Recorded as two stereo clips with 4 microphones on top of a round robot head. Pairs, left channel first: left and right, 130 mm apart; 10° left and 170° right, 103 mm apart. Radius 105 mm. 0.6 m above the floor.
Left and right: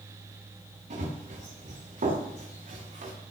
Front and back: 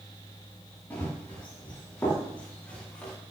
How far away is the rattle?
I don't hear a rattle.